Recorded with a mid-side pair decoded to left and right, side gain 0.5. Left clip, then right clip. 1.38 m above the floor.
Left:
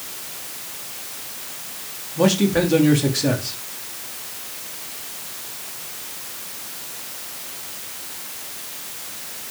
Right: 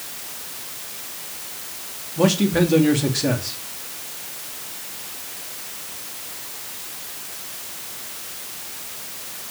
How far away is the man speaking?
About 3.5 m.